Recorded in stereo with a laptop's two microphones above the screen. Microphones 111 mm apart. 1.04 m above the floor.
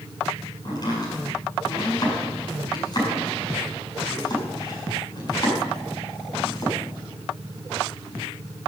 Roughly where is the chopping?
Left.